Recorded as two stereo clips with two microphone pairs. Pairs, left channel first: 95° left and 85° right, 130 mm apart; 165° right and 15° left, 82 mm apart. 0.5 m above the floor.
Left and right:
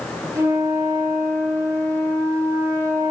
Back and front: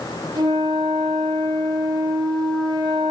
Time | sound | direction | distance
0.3 | a flute | 20° right | 7 m